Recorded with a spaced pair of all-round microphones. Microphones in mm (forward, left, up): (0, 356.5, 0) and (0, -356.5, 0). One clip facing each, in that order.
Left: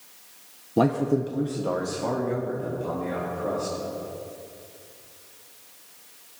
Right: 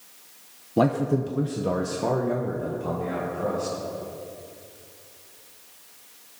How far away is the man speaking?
About 0.8 m.